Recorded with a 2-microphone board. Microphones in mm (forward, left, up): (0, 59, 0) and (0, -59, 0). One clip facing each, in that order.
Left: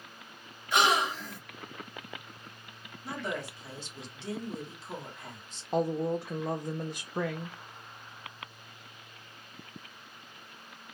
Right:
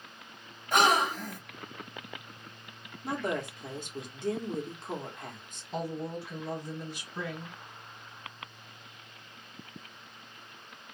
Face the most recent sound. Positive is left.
turn(degrees=55)  # may be behind; listen again after turning